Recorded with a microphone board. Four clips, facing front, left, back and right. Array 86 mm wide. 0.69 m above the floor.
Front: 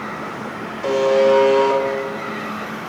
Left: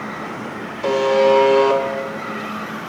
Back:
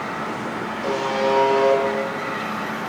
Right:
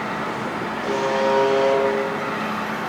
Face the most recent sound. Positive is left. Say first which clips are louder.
# left 7 dB, front 7 dB
turn(degrees=80)